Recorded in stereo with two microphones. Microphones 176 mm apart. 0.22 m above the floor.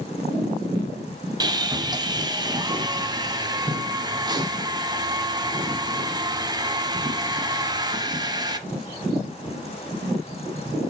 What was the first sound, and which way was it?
Sawing, 20° right (ahead or behind).